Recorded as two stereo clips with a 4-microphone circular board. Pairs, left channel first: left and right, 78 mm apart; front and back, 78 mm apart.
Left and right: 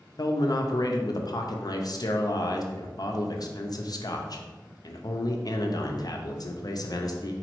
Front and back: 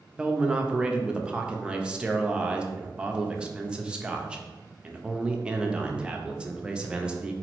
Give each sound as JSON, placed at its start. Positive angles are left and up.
{"t": 0.2, "sound": "a man speaking", "azimuth_deg": 105, "distance_m": 0.5}